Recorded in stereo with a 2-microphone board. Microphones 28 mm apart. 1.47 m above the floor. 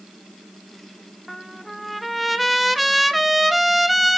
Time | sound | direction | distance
1.3 | a trumpet | centre (ahead or behind) | 0.5 m